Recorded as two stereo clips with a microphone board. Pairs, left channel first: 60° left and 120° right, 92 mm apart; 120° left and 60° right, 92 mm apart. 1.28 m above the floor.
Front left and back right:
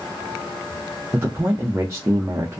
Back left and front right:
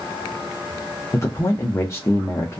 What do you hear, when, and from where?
1.1 s a man speaking: 175° left, 0.5 m